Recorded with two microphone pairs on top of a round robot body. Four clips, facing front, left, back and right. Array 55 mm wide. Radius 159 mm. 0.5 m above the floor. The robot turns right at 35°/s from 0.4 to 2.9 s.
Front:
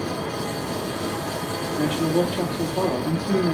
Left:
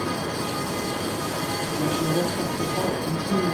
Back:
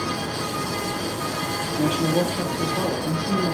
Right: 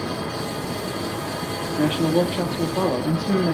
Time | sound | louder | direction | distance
1.8 | a man speaking | right 5 dB, even | 120° right | 1.7 m